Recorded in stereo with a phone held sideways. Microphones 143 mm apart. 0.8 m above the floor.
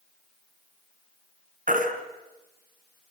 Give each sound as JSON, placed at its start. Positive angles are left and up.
{"t": 1.7, "sound": "a baby crying", "side_deg": -60, "distance_m": 3.5}